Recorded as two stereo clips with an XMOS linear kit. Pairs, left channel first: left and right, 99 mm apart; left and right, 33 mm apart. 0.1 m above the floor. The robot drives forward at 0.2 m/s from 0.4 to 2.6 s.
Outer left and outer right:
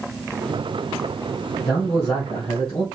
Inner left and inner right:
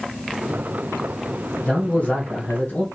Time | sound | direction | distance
1.6 | a man speaking | 40° left (ahead or behind) | 3 m